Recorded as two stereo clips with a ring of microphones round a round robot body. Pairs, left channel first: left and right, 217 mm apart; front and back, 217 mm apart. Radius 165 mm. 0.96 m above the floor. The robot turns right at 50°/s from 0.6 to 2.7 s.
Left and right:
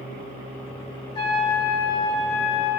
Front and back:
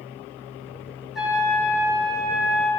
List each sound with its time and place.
1.1 s a trumpet: 90° left, 5 m; by 2.7 s 165° left, 5 m